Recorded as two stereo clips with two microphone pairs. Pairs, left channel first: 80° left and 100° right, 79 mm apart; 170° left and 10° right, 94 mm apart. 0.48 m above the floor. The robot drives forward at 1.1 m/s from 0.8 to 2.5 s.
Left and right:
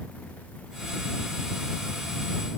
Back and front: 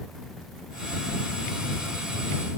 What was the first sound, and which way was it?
Only background noise.